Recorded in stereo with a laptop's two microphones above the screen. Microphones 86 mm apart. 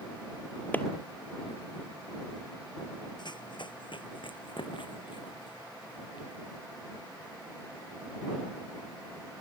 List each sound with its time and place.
0.7 s a clap: 20° left (ahead or behind)
3.2 s running footsteps: 60° left (ahead or behind); by 6.3 s 65° left (ahead or behind)